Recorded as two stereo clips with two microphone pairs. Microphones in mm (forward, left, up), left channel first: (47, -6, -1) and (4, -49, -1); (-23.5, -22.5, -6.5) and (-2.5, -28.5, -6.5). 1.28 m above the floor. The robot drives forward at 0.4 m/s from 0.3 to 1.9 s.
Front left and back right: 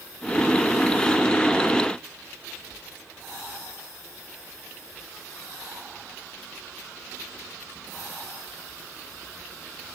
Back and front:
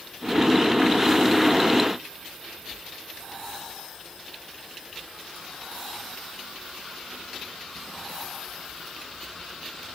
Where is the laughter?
No laughter in this recording.